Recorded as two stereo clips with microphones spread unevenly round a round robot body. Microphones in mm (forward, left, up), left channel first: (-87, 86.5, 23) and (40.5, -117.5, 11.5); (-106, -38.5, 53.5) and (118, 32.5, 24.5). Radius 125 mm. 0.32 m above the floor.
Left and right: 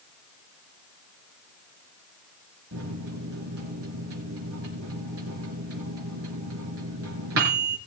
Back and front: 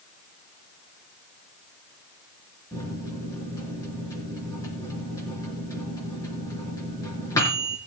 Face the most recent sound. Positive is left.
turn(degrees=-85)